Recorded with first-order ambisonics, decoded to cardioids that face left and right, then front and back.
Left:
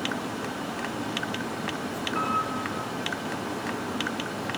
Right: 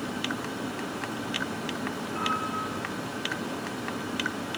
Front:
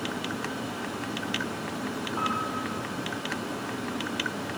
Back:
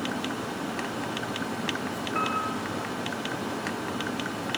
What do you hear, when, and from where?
2.1 s a piano: 160° left, 5.5 m